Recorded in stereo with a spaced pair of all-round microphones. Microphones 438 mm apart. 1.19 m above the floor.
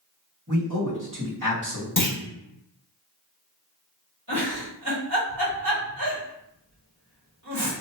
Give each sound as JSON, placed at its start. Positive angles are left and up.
{"t": 0.5, "sound": "a man speaking", "side_deg": -45, "distance_m": 1.6}
{"t": 2.0, "sound": "a clunk", "side_deg": 45, "distance_m": 0.6}
{"t": 4.3, "sound": "a giggle", "side_deg": -45, "distance_m": 1.6}